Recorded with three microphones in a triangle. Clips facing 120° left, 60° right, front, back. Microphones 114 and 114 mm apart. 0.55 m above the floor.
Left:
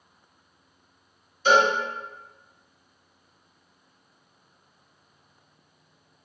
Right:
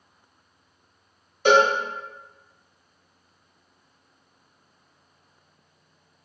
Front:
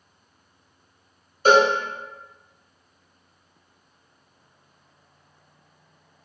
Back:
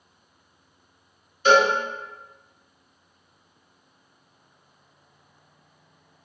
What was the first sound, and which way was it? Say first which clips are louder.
A cowbell: right 2 dB, front 1 dB; 45° right.